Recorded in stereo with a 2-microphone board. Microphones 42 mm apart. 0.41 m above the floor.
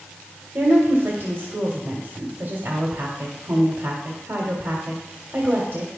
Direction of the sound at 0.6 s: 55° right (ahead or behind).